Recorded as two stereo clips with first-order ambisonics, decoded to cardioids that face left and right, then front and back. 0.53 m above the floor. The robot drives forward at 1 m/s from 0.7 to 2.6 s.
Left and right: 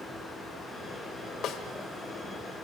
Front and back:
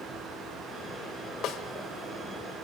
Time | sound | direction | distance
1.4 | a snare drum | 45° left | 1.8 m